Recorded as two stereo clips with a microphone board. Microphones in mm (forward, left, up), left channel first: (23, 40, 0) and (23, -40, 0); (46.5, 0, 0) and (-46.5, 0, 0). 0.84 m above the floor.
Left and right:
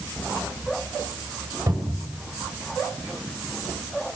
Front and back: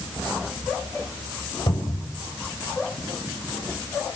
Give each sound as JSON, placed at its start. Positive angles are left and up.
{"t": 1.7, "sound": "a cupboard door", "azimuth_deg": -35, "distance_m": 5.0}